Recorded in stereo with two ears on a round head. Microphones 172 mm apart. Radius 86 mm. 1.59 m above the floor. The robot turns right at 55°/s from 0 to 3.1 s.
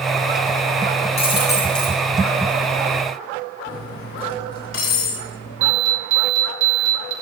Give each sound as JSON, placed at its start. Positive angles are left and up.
{"t": 1.2, "sound": "a dropped coin", "azimuth_deg": 145, "distance_m": 6.5}
{"t": 3.7, "sound": "cutlery clinking", "side_deg": 70, "distance_m": 3.0}
{"t": 5.6, "sound": "an alarm", "side_deg": -75, "distance_m": 4.5}